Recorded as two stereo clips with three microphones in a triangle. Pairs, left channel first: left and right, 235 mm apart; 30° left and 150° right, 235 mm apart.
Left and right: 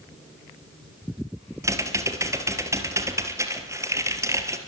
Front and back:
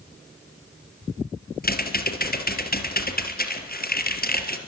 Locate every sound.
1.6 s typing on a keyboard: 15° right, 3 m